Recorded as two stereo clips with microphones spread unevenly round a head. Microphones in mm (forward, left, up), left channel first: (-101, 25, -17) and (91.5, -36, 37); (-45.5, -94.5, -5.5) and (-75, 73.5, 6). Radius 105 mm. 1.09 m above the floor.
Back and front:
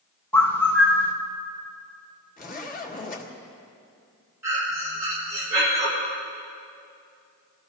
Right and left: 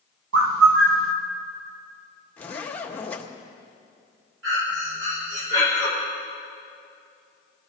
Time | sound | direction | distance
0.3 | a bird | 85° left | 1.1 m
2.4 | a zipper | 160° right | 1.9 m
4.4 | breathing | 65° left | 4 m